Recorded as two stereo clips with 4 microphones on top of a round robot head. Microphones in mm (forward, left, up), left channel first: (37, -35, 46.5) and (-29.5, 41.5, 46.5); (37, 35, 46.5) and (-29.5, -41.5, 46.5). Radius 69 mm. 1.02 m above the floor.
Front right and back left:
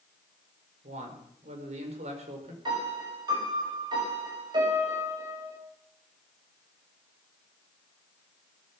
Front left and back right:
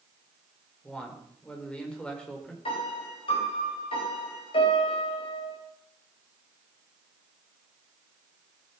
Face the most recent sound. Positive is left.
turn(degrees=85)